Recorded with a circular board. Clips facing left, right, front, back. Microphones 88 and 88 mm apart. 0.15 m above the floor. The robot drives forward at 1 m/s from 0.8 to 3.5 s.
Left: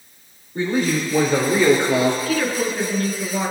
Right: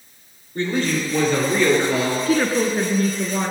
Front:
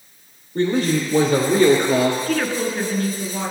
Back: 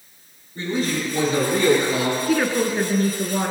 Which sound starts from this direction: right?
A woman speaking, at 2.3 s.